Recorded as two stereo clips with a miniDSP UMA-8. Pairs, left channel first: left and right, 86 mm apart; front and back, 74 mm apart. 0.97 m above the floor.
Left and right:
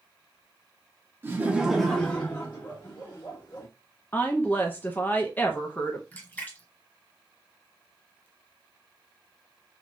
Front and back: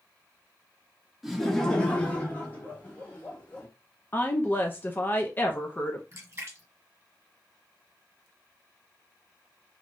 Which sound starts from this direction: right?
Laughter, at 1.2 s.